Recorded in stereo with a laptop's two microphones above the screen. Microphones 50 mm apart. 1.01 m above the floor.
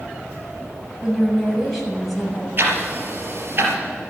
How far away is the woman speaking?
About 7 m.